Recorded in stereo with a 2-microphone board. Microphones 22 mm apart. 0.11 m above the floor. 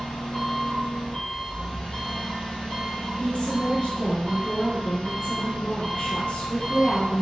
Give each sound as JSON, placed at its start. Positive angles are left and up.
{"t": 0.0, "sound": "an engine running", "side_deg": 60, "distance_m": 2.0}
{"t": 3.2, "sound": "a woman speaking", "side_deg": 60, "distance_m": 2.0}